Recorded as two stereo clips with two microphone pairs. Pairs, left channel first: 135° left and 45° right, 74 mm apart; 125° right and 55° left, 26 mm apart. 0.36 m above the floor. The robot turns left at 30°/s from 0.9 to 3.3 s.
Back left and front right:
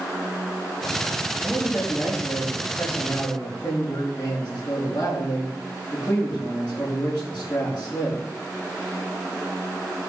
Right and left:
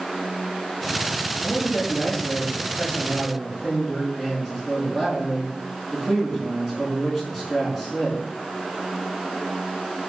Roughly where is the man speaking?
Behind.